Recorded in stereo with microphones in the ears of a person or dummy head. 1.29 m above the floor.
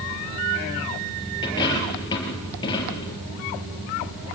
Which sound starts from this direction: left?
A dropped coin, at 1.4 s.